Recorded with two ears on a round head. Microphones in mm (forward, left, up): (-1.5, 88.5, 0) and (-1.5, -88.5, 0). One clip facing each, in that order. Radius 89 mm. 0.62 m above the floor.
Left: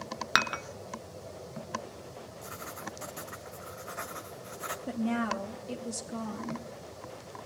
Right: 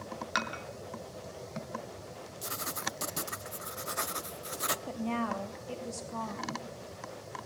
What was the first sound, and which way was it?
Dishes clattering, 65° left (ahead or behind).